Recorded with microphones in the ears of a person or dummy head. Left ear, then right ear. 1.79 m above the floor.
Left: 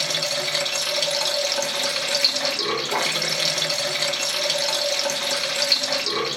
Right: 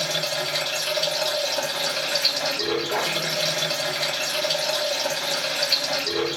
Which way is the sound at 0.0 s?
60° left (ahead or behind).